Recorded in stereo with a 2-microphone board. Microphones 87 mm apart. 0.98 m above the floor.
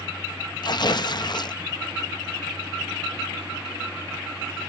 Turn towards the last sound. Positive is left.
turn(degrees=55)  # may be behind; listen again after turning